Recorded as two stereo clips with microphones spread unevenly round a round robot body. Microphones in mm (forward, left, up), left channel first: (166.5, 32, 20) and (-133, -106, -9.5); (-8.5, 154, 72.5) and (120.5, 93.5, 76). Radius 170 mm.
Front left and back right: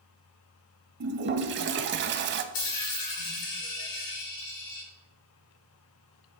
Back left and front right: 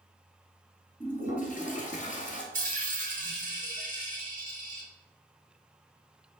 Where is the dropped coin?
5° right, 2.5 m.